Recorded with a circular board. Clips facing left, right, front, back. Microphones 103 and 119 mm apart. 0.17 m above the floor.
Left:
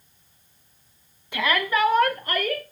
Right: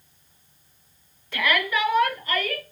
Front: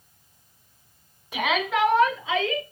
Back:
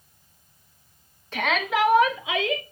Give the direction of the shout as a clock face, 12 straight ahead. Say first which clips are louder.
Left 1 dB, even; 10 o'clock.